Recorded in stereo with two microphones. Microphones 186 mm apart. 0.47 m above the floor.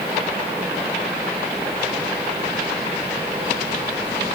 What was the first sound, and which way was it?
Only background noise.